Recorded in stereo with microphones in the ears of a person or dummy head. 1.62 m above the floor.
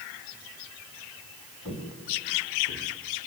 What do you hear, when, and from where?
1.6 s footsteps: 30° left (ahead or behind), 3.5 m; by 2.9 s 40° left (ahead or behind), 3 m